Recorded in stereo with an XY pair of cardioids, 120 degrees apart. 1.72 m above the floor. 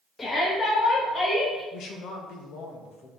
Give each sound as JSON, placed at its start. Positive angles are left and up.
{"t": 0.2, "sound": "a shout", "azimuth_deg": 25, "distance_m": 2.0}
{"t": 1.7, "sound": "a man speaking", "azimuth_deg": 70, "distance_m": 1.6}